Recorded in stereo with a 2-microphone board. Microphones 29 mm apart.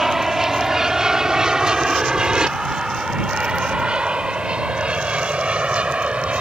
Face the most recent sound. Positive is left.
turn(degrees=-45)  # may be behind; listen again after turning